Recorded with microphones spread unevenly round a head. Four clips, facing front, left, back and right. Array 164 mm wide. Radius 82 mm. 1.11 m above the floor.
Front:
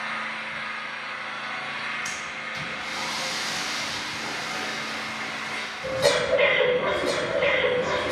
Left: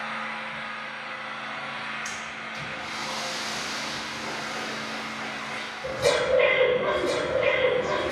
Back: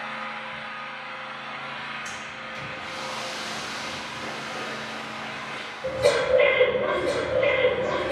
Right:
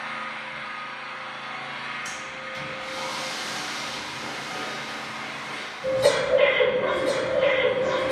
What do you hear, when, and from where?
0.0 s an engine running: 5° left, 0.9 m
2.0 s breathing: 20° right, 1.2 m